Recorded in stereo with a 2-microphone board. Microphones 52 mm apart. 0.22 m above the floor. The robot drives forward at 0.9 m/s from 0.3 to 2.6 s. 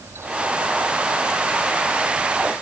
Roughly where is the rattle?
I don't hear a rattle.